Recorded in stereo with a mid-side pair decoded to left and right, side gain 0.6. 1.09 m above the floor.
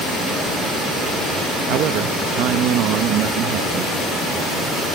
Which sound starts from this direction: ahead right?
A man speaking, at 1.7 s.